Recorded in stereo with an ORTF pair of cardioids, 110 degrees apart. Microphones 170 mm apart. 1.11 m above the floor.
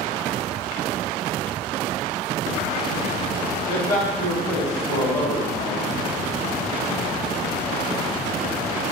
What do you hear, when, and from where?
3.7 s a man speaking: 45° left, 1.5 m